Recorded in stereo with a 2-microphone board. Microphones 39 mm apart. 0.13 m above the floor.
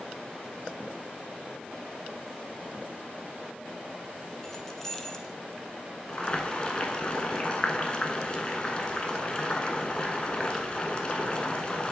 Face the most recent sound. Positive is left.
turn(degrees=25)  # may be behind; listen again after turning